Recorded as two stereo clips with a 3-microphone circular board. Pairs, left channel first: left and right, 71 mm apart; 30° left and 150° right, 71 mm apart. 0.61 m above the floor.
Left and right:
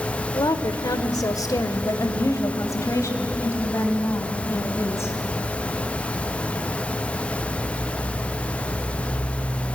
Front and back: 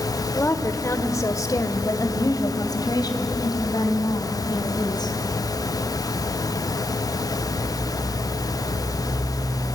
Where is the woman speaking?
80° left, 1.6 m; by 5.2 s 40° left, 4 m.